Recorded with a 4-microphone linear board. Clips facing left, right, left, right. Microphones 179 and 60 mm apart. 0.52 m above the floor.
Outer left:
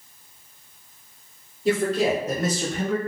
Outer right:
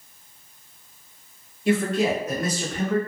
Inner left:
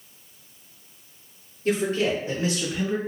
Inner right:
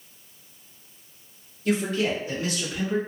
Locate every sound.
1.6 s a man speaking: 35° left (ahead or behind), 1.5 m; by 3.0 s 10° left (ahead or behind), 1.7 m